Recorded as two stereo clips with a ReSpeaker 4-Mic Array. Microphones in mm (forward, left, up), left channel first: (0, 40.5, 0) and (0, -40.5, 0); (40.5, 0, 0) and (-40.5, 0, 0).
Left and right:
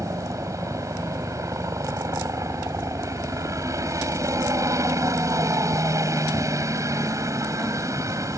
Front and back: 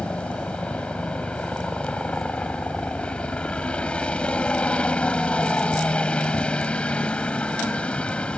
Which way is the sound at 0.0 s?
70° right.